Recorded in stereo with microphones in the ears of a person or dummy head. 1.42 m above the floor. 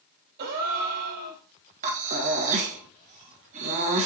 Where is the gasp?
50° right (ahead or behind), 2.5 m.